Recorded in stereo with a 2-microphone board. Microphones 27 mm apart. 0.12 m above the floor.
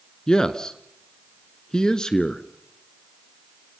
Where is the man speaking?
25° left (ahead or behind), 1.3 m.